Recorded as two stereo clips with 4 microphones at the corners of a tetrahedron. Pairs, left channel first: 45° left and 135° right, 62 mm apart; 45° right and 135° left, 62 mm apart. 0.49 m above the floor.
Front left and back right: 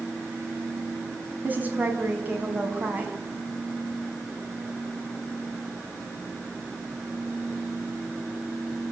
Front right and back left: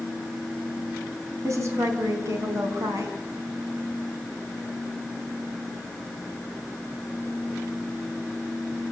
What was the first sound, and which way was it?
A woman speaking, 165° left.